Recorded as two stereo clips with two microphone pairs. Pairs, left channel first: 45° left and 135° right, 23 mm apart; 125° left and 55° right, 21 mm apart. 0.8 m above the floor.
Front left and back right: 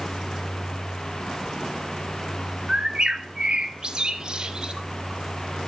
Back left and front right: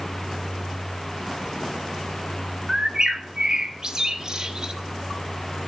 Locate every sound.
2.7 s a bird: 90° right, 1.0 m